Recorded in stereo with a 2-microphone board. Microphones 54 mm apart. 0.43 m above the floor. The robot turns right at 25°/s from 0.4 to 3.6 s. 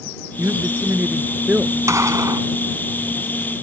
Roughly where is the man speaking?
Ahead right.